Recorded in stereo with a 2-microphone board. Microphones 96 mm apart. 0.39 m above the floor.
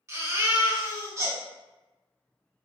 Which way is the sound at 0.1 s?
30° right (ahead or behind).